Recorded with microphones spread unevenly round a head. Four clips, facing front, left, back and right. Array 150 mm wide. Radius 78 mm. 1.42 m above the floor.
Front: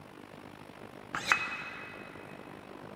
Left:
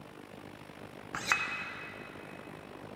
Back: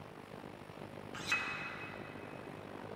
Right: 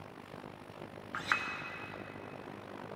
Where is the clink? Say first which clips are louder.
Left 1 dB, front 10 dB; 45° left, 0.6 m.